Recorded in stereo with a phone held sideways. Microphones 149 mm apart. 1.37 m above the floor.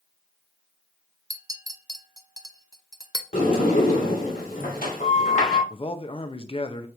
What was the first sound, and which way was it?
A clink, 25° right (ahead or behind).